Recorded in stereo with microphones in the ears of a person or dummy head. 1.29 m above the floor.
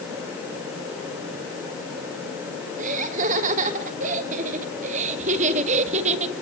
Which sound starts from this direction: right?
Laughter, at 2.8 s.